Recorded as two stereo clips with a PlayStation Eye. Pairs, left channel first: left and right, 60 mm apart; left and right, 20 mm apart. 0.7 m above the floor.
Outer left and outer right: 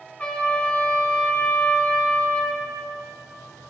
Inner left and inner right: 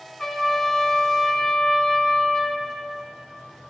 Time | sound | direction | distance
0.2 | a trumpet | 20° left (ahead or behind) | 1.2 m